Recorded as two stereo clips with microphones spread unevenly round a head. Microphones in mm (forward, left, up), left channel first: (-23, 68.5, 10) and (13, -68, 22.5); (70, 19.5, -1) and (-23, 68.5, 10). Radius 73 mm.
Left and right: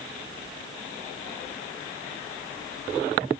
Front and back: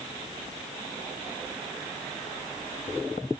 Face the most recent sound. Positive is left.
No sound to turn to.